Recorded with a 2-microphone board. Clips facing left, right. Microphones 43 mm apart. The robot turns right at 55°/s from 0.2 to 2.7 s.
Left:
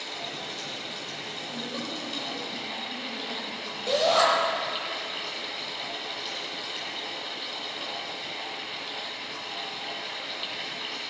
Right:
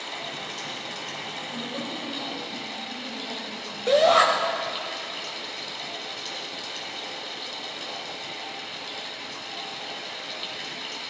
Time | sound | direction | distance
0.0 | running water | 125° right | 1.6 m
1.5 | a woman speaking | 10° left | 3.5 m
3.9 | a shout | 35° right (ahead or behind) | 1.1 m